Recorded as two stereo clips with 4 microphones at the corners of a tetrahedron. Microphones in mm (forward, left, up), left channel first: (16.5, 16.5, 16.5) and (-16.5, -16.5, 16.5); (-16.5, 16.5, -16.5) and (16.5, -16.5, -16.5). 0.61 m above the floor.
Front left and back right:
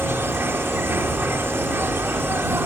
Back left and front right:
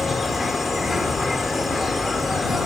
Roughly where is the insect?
Behind right.